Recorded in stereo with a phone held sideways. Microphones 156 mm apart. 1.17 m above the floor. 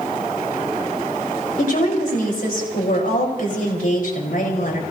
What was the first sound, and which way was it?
A woman speaking, 60° left (ahead or behind).